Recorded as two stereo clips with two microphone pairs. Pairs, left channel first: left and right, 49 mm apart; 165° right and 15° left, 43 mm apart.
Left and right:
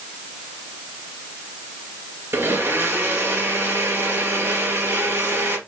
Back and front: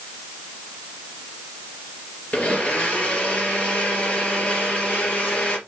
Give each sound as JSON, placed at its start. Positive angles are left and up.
{"t": 2.3, "sound": "a blender", "azimuth_deg": -110, "distance_m": 3.5}